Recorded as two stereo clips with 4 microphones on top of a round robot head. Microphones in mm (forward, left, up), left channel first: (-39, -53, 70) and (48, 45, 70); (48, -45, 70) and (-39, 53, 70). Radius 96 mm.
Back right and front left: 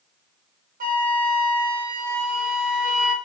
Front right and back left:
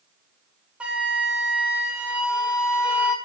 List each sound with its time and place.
0.8 s a flute: 50° left, 3 m